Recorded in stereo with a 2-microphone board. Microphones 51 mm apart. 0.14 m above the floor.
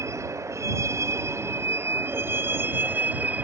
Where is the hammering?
I don't hear hammering.